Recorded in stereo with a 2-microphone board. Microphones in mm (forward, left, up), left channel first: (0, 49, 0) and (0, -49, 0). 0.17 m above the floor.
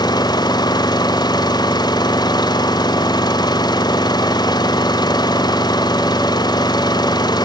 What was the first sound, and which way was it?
An engine running, 45° left (ahead or behind).